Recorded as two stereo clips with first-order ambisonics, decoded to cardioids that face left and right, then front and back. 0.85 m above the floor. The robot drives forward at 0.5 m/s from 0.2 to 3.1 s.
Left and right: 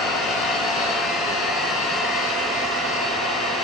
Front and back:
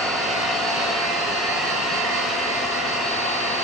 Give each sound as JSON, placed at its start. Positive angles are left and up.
{"t": 0.0, "sound": "an engine running", "azimuth_deg": 105, "distance_m": 1.1}